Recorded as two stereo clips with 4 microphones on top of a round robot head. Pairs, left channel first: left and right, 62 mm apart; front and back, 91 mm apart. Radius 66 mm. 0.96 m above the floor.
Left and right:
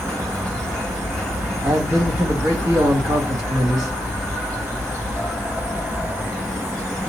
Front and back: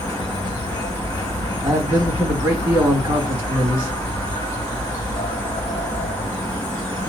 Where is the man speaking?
115° right, 1.8 m.